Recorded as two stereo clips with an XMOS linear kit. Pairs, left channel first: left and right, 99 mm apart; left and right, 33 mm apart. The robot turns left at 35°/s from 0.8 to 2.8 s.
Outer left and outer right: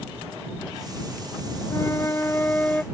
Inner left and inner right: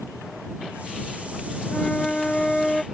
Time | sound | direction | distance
1.7 | a flute | 60° left | ?